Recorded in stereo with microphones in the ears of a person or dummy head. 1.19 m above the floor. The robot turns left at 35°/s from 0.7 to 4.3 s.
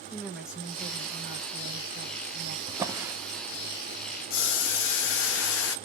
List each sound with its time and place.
0.1 s a woman speaking: 5° right, 1.0 m; by 2.6 s 70° right, 1.0 m
2.7 s a drawer: 25° right (ahead or behind), 0.7 m; by 3.1 s 10° right (ahead or behind), 0.7 m
4.3 s boiling: 70° left (ahead or behind), 0.9 m